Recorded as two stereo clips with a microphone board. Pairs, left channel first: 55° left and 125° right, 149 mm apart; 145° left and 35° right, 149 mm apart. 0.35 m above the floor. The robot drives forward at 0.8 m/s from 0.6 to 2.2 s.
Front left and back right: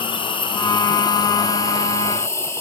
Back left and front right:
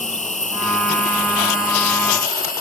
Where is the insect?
110° left, 3.5 m; by 2.6 s 130° left, 4 m.